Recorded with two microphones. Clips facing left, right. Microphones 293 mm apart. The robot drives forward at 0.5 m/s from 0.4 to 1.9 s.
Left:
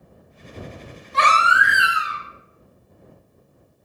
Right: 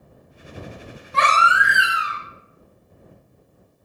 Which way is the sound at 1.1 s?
65° right (ahead or behind).